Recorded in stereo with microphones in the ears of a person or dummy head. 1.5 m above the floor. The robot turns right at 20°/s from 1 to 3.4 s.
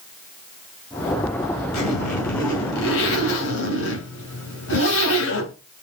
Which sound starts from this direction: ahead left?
A zipper, at 1.7 s.